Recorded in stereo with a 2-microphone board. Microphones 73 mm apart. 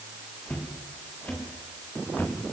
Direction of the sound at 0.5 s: 20° left (ahead or behind).